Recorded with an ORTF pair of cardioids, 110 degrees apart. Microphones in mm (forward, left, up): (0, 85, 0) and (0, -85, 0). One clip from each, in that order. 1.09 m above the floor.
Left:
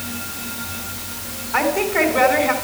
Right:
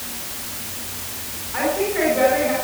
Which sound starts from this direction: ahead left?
A woman speaking, at 1.5 s.